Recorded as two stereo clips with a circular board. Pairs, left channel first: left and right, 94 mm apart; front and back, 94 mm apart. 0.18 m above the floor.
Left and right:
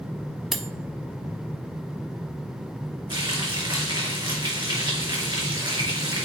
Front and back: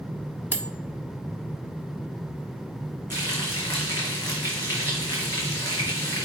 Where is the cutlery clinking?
175° right, 0.6 m.